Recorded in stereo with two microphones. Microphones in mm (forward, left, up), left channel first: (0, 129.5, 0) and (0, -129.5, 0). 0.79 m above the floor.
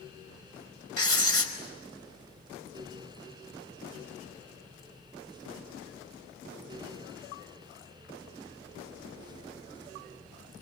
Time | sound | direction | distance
1.0 | writing | 55° left (ahead or behind) | 4.5 m